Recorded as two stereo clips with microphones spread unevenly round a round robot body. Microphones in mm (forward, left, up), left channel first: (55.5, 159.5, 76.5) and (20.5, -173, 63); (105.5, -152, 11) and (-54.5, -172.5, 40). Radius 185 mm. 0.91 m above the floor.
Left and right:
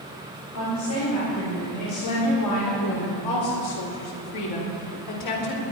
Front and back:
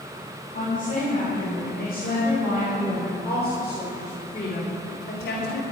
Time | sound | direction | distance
0.5 | a woman speaking | 140° left | 5 m